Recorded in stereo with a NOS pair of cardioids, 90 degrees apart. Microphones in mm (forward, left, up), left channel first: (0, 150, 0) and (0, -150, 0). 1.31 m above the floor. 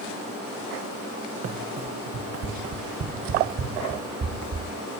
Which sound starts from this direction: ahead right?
Running footsteps, at 1.4 s.